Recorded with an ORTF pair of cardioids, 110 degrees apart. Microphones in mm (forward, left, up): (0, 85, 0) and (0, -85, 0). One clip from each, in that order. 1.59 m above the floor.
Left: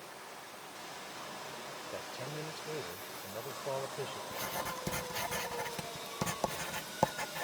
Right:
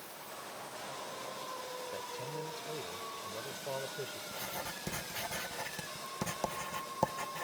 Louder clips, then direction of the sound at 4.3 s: Left 4 dB; 10° left.